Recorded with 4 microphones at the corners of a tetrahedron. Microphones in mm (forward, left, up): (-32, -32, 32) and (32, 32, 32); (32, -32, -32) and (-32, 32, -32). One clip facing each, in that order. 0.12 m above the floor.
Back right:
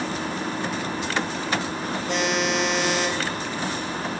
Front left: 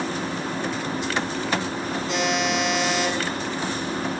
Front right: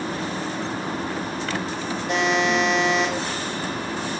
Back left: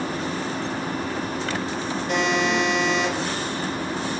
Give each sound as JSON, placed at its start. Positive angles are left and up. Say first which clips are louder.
{"t": 2.1, "sound": "a buzzer", "louder": "even, front right 1 dB", "azimuth_deg": -115, "distance_m": 1.8}